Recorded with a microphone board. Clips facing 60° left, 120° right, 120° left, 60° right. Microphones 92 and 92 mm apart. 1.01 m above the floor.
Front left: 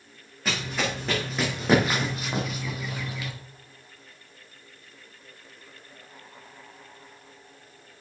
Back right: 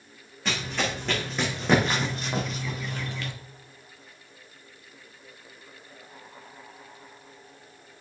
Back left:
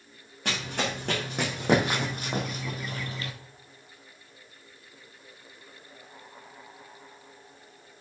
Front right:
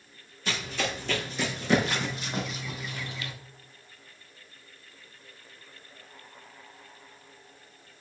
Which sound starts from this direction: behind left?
Running footsteps, at 0.5 s.